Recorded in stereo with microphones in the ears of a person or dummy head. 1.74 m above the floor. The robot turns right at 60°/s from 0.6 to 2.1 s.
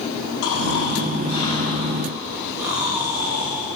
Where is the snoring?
105° left, 3.5 m; by 3.7 s 165° right, 3.5 m.